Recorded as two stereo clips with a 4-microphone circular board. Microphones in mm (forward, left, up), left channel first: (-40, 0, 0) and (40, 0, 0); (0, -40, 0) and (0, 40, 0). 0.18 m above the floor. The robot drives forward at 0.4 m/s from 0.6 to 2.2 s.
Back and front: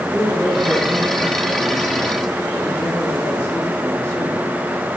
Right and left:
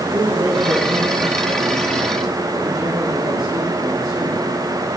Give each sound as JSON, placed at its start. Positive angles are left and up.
{"t": 0.1, "sound": "a man speaking", "azimuth_deg": 105, "distance_m": 4.0}